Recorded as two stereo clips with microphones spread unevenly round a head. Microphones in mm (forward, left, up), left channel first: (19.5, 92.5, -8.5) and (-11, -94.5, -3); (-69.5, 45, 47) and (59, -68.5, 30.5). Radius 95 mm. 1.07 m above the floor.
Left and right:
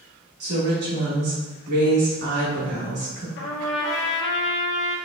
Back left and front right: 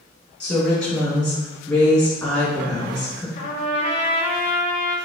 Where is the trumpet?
85° left, 0.9 m.